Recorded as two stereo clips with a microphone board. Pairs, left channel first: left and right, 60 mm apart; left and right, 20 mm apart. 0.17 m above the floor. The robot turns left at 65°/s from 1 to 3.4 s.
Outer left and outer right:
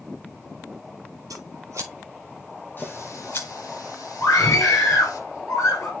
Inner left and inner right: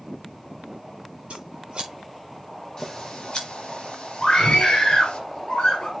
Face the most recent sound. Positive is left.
turn(degrees=60)  # may be behind; listen again after turning